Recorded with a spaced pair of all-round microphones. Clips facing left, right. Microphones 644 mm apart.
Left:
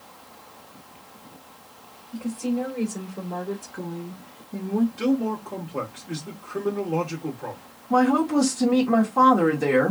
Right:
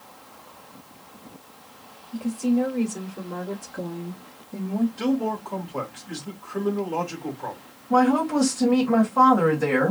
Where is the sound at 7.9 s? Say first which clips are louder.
Even; centre (ahead or behind), 1.7 m.